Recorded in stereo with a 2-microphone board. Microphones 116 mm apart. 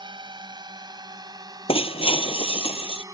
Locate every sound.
0.0 s a drone: 40° right (ahead or behind); by 3.1 s 30° right (ahead or behind)
1.7 s breaking glass: 55° left (ahead or behind)